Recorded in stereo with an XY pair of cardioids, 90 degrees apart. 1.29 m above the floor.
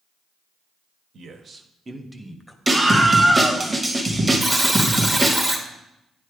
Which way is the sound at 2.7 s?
20° right.